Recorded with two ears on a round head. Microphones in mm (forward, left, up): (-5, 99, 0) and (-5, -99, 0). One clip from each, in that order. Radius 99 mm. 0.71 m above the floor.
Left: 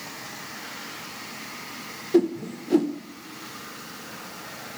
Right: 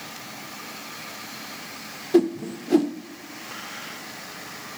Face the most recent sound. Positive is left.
turn(degrees=-15)  # may be behind; listen again after turning